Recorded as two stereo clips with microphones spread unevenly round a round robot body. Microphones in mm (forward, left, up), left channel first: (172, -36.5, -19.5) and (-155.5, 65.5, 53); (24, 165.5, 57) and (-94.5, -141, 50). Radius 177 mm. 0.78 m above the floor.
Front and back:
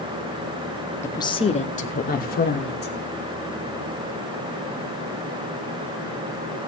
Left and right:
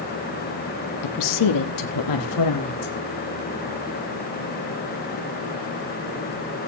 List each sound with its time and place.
1.0 s a woman speaking: 55° left, 1.0 m; by 2.9 s 40° left, 2.5 m